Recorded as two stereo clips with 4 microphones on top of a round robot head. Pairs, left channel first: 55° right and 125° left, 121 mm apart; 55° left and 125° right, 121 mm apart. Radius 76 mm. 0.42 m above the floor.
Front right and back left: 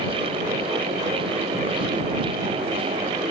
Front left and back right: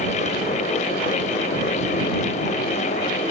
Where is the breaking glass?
No breaking glass in this recording.